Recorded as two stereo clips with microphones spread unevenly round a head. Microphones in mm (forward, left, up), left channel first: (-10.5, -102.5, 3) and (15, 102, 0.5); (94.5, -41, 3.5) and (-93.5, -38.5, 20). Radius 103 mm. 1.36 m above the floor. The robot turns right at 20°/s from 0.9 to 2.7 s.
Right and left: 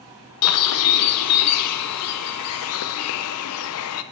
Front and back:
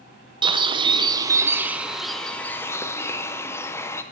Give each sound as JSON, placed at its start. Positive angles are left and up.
{"t": 0.4, "sound": "a bird", "azimuth_deg": -115, "distance_m": 0.6}